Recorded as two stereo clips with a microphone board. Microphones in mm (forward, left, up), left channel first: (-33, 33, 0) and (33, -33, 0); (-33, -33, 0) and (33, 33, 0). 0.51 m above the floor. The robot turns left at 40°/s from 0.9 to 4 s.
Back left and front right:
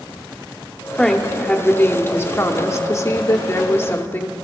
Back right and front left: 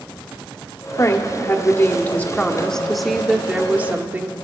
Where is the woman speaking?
145° right, 1.0 m; by 4.3 s 95° left, 1.0 m.